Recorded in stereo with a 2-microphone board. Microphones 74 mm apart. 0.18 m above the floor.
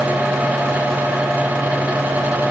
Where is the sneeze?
No sneeze in this recording.